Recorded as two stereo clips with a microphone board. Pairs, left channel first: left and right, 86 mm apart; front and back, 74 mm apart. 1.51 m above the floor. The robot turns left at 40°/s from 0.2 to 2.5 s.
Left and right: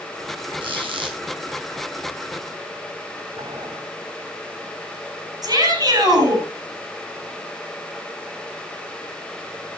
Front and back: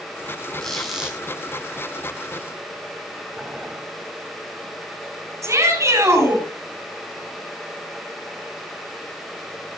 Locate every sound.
0.6 s a squeak: 80° right, 5.5 m; by 1.2 s 105° right, 5.5 m
3.4 s boiling: 100° right, 3.5 m
5.4 s a shout: 130° right, 10 m